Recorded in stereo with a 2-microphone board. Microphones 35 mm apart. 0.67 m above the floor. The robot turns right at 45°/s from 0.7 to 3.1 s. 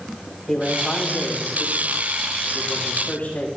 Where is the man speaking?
25° left, 5.5 m; by 3.5 s 130° left, 5.5 m.